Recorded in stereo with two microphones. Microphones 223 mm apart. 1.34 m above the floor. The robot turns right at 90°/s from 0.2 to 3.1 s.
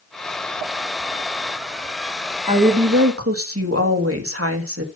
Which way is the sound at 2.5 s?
155° right.